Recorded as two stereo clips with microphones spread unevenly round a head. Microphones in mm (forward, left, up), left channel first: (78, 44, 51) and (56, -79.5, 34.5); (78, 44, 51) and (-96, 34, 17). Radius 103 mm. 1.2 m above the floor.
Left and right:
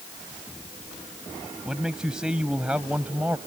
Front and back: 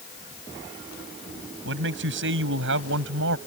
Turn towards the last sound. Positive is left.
turn(degrees=175)